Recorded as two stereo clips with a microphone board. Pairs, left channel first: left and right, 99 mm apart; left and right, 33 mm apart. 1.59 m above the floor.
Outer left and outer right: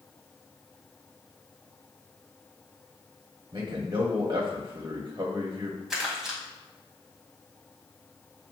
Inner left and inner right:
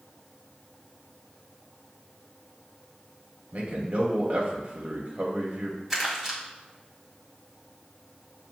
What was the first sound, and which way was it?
A man speaking, 40° right (ahead or behind).